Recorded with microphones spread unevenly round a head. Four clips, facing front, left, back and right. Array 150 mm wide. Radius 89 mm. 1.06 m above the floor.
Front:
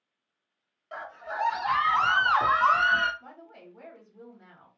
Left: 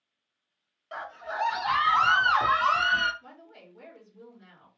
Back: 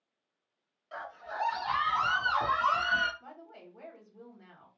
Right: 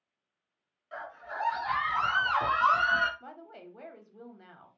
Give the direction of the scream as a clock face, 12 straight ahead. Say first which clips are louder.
Left 4 dB, front 4 dB; 10 o'clock.